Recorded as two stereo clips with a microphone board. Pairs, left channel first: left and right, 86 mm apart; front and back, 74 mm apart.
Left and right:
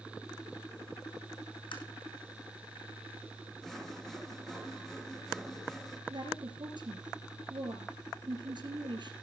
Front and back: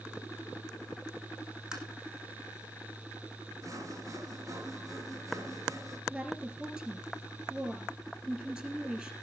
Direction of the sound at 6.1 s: 105° right.